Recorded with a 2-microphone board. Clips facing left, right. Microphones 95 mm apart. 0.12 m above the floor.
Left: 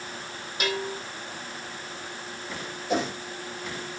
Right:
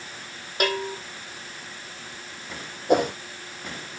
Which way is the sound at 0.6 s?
55° right (ahead or behind).